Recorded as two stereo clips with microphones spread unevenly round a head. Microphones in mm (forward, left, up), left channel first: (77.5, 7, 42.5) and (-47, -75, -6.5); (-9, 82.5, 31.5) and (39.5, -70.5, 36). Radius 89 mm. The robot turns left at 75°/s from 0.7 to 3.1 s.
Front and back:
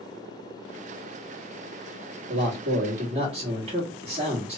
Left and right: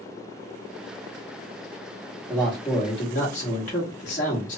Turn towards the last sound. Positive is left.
turn(degrees=155)